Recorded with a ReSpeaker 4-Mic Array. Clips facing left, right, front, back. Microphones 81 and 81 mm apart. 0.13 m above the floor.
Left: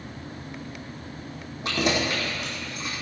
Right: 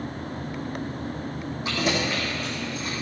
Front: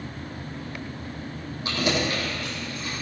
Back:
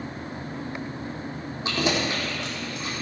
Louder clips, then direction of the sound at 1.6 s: Left 1 dB, even; 115° left.